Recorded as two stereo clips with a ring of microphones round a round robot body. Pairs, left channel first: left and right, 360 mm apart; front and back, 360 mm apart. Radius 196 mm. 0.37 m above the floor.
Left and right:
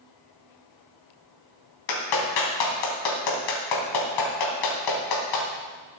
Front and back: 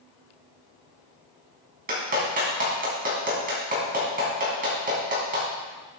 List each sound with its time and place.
1.9 s a clap: 110° left, 3 m